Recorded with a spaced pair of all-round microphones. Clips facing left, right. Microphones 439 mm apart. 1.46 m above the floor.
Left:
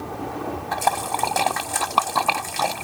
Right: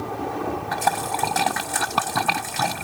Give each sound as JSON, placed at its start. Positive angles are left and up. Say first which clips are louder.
{"t": 0.7, "sound": "a splash", "louder": "even", "side_deg": -30}